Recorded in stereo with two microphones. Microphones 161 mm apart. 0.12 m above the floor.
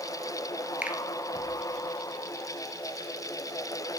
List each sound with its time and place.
0.8 s a finger snap: 10° right (ahead or behind), 1.5 m